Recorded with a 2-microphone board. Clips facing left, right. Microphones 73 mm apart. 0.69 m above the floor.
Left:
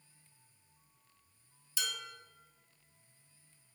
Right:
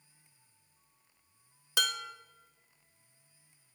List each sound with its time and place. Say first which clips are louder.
1.8 s dishes clattering: right 8 dB; 65° right (ahead or behind), 0.6 m